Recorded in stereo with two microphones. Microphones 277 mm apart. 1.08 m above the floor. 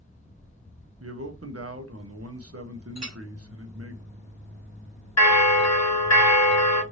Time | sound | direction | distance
1.0 | a man speaking | 60° right (ahead or behind) | 0.8 m
3.0 | a clink | 70° right (ahead or behind) | 1.1 m
5.2 | a bell | 70° left (ahead or behind) | 0.7 m